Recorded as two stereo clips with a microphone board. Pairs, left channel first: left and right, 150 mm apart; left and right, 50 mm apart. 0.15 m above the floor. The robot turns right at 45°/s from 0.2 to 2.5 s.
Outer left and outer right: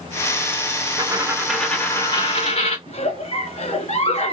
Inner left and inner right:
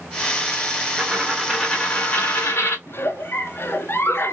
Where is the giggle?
45° left (ahead or behind), 1.1 m.